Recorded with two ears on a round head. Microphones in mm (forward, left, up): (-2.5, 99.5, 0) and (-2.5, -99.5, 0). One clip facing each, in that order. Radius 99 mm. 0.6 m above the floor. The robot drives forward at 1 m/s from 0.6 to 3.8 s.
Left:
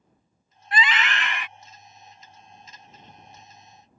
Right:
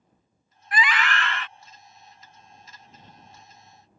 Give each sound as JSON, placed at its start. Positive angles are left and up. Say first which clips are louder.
{"t": 0.7, "sound": "a scream", "louder": "even", "side_deg": 25}